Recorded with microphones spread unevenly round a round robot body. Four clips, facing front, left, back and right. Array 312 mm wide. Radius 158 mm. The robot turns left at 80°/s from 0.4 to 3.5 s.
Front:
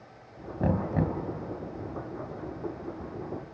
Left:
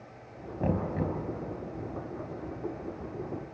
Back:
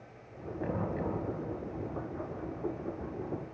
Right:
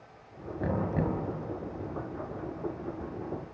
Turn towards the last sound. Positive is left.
turn(degrees=135)